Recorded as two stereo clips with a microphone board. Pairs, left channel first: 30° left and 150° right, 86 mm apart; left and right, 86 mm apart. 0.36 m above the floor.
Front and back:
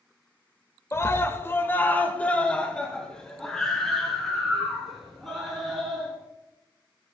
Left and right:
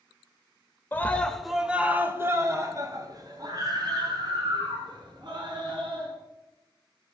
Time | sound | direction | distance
0.9 | a scream | 45° left | 1.1 m